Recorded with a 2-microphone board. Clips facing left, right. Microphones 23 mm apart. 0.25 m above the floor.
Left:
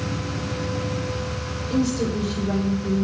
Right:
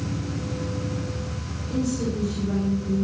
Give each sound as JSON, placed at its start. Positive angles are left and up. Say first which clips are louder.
{"t": 1.7, "sound": "a woman speaking", "louder": "left 3 dB", "side_deg": 45, "distance_m": 7.5}